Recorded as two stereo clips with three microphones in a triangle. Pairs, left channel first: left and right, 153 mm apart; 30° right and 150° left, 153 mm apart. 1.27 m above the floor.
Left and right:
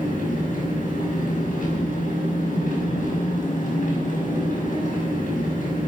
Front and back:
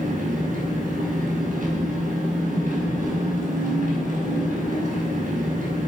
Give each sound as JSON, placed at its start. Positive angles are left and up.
{"t": 0.0, "sound": "an engine running", "azimuth_deg": 120, "distance_m": 6.5}